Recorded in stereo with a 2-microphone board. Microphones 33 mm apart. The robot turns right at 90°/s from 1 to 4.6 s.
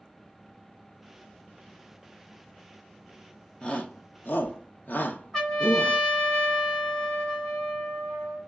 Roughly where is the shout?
Left.